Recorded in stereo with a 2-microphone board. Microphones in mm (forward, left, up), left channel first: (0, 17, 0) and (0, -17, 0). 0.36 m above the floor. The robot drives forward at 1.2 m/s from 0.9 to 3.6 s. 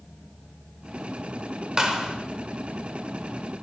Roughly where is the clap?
Centre.